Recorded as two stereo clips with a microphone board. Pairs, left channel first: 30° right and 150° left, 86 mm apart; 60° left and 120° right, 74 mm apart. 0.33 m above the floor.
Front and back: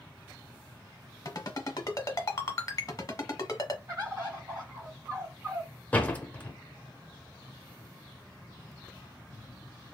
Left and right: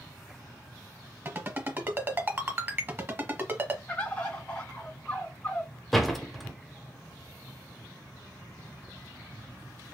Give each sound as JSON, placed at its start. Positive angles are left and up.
{"t": 1.2, "sound": "a ringtone", "azimuth_deg": -70, "distance_m": 0.8}
{"t": 3.9, "sound": "a bird", "azimuth_deg": 120, "distance_m": 1.6}
{"t": 5.9, "sound": "a door slam", "azimuth_deg": -25, "distance_m": 0.7}